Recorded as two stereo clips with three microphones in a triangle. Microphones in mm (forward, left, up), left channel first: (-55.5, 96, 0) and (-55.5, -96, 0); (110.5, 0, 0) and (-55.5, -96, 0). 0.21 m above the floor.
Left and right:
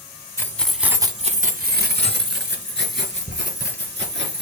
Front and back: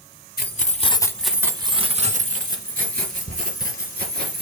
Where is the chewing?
No chewing in this recording.